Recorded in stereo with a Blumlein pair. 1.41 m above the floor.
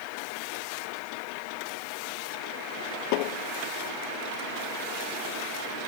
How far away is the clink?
I don't hear a clink.